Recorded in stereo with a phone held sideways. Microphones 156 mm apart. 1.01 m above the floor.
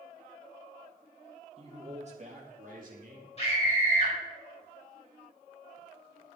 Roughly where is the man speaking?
Right.